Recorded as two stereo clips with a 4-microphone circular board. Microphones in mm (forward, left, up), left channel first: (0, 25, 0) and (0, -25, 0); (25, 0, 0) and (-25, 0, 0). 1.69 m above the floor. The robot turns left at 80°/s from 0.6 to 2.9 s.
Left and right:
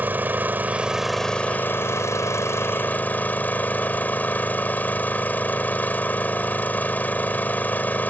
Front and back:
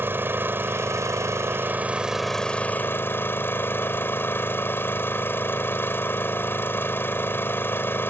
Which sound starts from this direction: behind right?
An engine running, at 0.0 s.